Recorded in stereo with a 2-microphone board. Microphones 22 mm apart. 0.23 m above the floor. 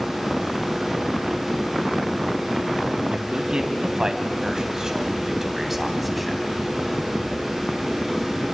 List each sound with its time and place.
3.1 s a man speaking: 45° right (ahead or behind), 2 m; by 6.4 s centre (ahead or behind), 1.8 m